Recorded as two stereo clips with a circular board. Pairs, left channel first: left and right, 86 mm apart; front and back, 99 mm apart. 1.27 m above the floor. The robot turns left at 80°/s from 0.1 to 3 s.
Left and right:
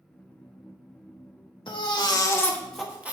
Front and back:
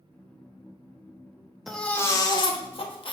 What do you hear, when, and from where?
1.7 s a baby crying: 90° left, 1.1 m; by 3.1 s 15° right, 1.1 m